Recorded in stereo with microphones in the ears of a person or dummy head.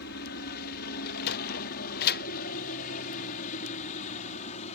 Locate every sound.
0.0 s a helicopter: 60° left (ahead or behind); by 4.8 s 45° left (ahead or behind)
1.1 s a sliding door: 60° left (ahead or behind)